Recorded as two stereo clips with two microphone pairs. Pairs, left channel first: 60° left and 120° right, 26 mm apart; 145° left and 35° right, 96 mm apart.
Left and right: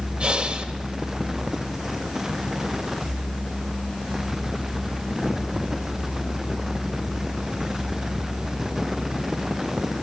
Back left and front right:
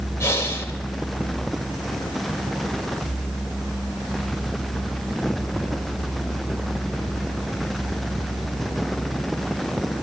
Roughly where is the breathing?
Behind.